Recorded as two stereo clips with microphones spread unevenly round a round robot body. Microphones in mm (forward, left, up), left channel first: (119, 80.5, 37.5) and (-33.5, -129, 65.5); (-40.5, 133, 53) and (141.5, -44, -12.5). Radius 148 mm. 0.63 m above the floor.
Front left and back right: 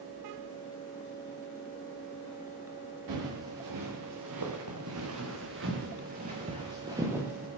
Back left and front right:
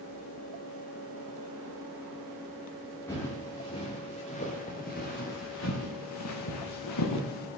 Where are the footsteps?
145° right, 5 m; by 7.5 s 145° left, 3.5 m.